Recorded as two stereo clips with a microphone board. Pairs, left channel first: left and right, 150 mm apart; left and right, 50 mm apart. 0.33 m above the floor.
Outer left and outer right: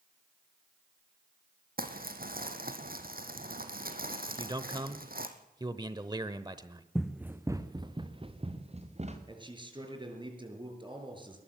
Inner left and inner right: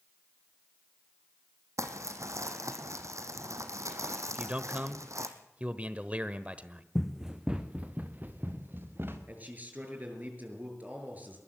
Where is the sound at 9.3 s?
30° right (ahead or behind), 6 m.